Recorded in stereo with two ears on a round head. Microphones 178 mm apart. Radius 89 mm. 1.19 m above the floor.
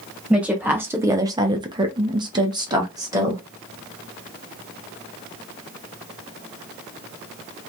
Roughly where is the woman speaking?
Centre.